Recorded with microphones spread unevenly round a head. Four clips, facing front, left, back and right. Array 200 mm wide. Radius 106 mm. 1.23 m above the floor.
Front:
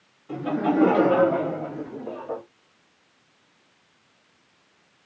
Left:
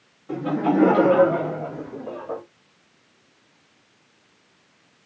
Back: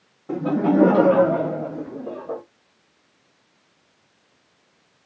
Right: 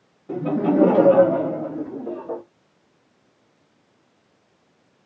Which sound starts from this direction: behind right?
Laughter, at 0.3 s.